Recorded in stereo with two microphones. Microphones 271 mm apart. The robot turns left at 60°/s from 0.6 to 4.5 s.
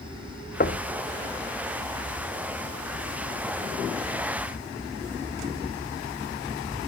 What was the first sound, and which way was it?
Knocking, 35° left (ahead or behind).